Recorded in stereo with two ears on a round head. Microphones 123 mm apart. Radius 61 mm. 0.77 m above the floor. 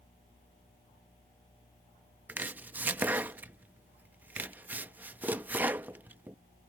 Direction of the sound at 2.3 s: 10° right (ahead or behind).